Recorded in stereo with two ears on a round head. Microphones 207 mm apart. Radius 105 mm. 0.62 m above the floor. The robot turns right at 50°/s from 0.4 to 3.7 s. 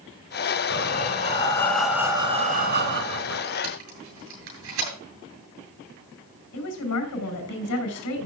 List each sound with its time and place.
0.7 s breathing: 125° left, 2.5 m; by 3.4 s 100° right, 2.5 m
3.6 s tape being pulled: 65° right (ahead or behind), 8.5 m; by 4.9 s 60° right (ahead or behind), 8.5 m
6.5 s a woman speaking: 80° left, 5.5 m